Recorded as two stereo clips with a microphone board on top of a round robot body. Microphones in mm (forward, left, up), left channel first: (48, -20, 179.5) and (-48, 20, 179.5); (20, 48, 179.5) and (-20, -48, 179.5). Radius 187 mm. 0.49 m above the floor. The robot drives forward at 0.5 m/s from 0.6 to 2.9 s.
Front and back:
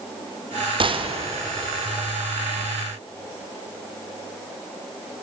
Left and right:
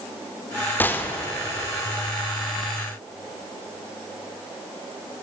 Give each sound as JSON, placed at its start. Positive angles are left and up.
{"t": 0.8, "sound": "a gunshot", "azimuth_deg": 135, "distance_m": 2.5}